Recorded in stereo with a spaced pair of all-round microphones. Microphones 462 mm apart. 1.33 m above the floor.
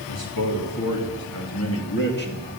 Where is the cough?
I don't hear a cough.